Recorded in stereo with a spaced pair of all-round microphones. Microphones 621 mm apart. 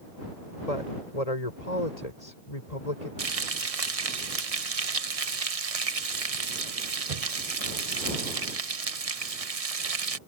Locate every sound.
0.7 s a woman speaking: 85° left
3.2 s frying: 65° right (ahead or behind)